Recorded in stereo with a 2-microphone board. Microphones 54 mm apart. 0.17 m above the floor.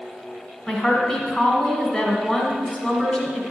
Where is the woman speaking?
10° left (ahead or behind), 1.4 m.